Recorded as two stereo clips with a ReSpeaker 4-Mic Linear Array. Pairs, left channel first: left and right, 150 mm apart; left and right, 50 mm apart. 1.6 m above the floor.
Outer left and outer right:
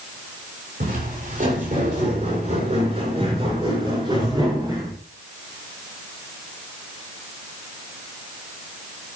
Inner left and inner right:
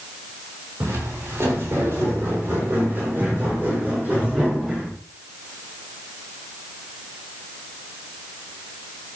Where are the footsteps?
65° right (ahead or behind), 7 m; by 4.9 s 25° right (ahead or behind), 9 m.